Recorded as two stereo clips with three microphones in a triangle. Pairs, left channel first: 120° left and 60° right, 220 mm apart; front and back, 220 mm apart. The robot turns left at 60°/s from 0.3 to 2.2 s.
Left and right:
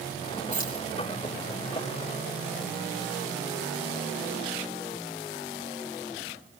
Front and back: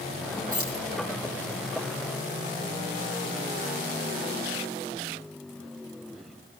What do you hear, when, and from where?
0.5 s keys jangling: straight behind, 8 m; by 0.8 s 160° left, 8 m